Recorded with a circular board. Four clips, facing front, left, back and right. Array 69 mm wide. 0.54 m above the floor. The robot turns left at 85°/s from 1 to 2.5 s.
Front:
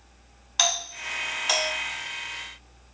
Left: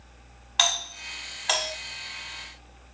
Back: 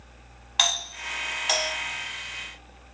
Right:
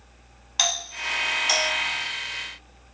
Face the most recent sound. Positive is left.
turn(degrees=15)